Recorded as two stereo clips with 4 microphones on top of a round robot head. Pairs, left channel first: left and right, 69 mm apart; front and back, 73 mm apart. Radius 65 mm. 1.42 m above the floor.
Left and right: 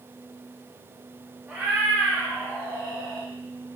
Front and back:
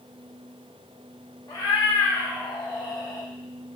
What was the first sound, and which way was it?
A cat meowing, 10° right.